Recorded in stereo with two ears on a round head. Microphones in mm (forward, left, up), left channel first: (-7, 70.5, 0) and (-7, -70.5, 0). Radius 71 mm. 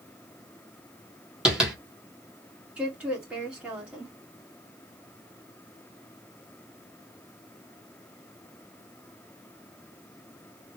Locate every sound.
1.4 s tapping: 5° right (ahead or behind), 1.5 m
2.8 s a woman speaking: 5° right (ahead or behind), 2 m